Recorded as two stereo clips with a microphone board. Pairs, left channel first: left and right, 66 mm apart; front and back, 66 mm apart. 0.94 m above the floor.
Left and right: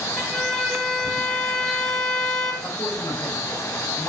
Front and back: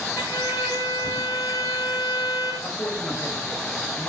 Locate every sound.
0.2 s a violin: 5° left, 1.8 m
2.6 s a man speaking: 55° left, 5.5 m